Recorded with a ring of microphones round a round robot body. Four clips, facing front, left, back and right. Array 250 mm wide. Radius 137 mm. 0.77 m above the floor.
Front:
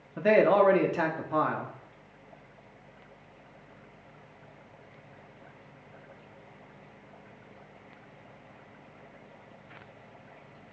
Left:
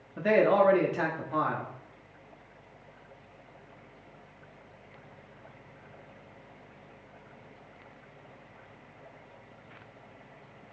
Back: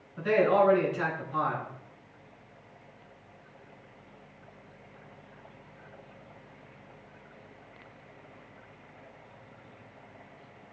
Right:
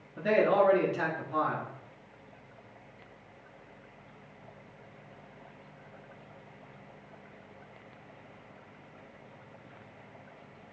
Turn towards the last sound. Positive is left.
turn(degrees=20)